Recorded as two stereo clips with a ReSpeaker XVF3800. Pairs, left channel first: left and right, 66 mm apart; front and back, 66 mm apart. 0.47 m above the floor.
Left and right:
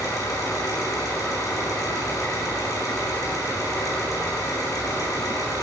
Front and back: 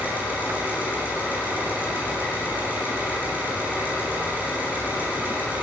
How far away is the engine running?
About 8.5 m.